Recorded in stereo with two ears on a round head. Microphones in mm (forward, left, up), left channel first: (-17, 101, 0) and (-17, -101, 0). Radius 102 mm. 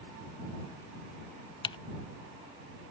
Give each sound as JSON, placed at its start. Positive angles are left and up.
{"t": 1.6, "sound": "typing on a keyboard", "side_deg": 20}